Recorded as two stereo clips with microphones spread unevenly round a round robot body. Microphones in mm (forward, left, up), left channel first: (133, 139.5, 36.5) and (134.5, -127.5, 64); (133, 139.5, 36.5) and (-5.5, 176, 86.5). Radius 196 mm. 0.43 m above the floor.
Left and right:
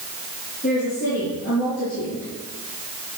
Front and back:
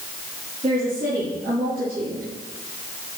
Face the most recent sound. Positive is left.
turn(degrees=170)